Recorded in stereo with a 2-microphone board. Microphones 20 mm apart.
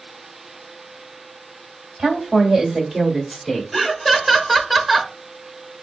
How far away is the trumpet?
I don't hear a trumpet.